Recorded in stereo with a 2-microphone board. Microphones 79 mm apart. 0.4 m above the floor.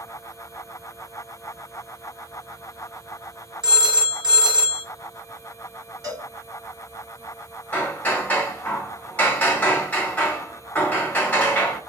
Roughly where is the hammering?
Centre.